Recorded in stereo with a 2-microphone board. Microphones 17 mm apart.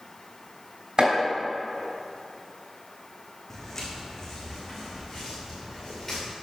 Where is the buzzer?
I don't hear a buzzer.